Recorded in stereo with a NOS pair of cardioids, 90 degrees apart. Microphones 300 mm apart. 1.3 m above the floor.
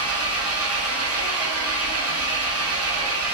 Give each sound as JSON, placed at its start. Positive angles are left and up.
{"t": 0.0, "sound": "an engine running", "azimuth_deg": -50, "distance_m": 0.9}